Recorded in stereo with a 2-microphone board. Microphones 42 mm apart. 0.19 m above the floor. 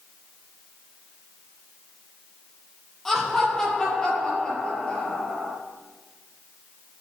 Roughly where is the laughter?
Centre.